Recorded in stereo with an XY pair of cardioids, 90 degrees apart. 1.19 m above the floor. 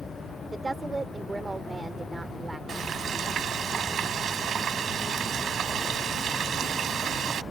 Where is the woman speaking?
20° right.